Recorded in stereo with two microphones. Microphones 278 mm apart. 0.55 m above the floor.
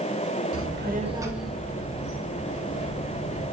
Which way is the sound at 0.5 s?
55° right (ahead or behind).